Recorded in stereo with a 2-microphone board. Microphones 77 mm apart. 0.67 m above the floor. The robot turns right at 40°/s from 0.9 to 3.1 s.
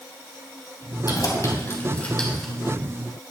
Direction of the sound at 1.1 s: 55° left (ahead or behind).